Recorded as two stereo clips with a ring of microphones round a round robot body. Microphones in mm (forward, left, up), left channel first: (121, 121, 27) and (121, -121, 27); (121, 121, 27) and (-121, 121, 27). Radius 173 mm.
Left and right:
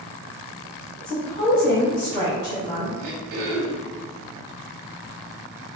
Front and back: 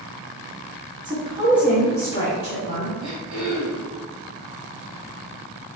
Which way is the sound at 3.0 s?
95° right.